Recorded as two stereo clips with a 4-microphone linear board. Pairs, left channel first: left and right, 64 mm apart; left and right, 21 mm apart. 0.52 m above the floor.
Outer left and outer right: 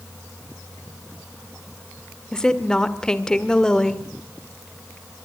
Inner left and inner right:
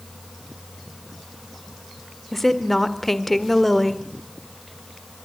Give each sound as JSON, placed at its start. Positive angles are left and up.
{"t": 2.3, "sound": "a woman speaking", "side_deg": 10, "distance_m": 1.9}